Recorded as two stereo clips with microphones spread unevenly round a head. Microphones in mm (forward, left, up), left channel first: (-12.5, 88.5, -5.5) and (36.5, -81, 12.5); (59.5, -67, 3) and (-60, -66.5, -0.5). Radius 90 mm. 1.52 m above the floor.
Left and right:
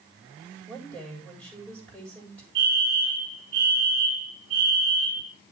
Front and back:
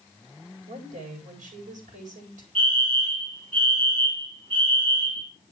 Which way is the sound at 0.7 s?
175° right.